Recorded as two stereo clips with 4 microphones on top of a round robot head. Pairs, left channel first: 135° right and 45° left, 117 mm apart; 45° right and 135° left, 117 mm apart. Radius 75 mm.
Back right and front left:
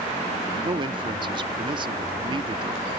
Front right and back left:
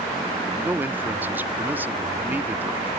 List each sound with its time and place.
0.6 s a man speaking: 65° left